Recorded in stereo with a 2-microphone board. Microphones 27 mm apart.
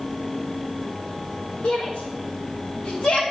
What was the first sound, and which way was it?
A shout, 60° left (ahead or behind).